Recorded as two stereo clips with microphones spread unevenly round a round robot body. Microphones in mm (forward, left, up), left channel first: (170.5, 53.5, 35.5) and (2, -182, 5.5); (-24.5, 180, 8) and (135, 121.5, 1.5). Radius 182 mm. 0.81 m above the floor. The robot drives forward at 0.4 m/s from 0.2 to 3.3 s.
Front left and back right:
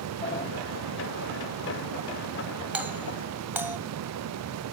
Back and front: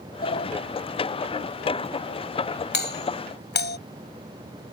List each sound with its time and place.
0.2 s a sliding door: 130° left
2.7 s a doorbell: 150° left